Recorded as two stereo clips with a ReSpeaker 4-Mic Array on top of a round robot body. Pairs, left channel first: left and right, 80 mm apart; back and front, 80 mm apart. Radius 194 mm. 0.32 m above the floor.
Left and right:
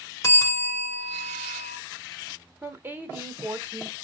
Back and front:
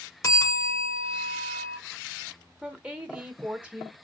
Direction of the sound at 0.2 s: 135° left.